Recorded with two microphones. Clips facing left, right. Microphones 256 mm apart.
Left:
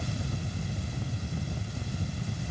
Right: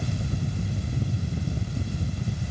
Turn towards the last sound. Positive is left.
No sound to turn to.